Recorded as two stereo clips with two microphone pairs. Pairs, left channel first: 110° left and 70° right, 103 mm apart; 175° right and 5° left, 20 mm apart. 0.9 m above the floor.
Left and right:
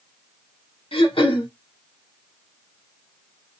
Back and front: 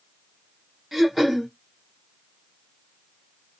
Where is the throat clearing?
85° left, 0.9 m.